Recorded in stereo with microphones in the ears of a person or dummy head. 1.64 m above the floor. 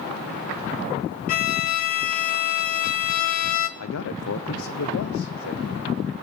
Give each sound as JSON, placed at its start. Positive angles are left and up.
{"t": 1.3, "sound": "a violin", "side_deg": 45, "distance_m": 0.7}
{"t": 3.8, "sound": "a man speaking", "side_deg": 80, "distance_m": 0.9}